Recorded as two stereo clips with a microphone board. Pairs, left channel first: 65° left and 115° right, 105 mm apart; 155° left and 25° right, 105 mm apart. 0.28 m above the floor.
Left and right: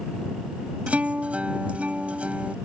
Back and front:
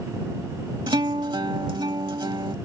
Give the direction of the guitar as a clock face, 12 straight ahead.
1 o'clock.